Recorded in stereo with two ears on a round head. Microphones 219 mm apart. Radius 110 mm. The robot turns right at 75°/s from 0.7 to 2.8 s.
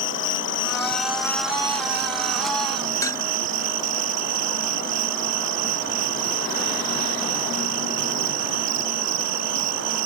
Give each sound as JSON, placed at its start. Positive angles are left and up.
{"t": 0.0, "sound": "an insect", "azimuth_deg": 125}
{"t": 3.0, "sound": "dishes clattering", "side_deg": 15}